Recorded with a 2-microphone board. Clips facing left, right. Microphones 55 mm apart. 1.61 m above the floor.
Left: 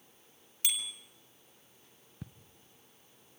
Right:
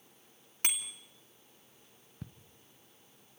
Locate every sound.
0.6 s a bicycle bell: 55° right (ahead or behind), 2.5 m
2.2 s ticking: 5° left (ahead or behind), 0.7 m